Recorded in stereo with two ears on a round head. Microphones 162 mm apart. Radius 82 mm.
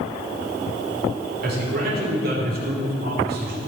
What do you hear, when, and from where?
1.4 s a man speaking: 55° right (ahead or behind), 2.5 m